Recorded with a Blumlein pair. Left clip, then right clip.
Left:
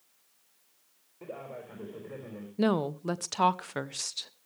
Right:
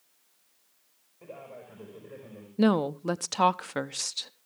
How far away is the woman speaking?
About 0.6 m.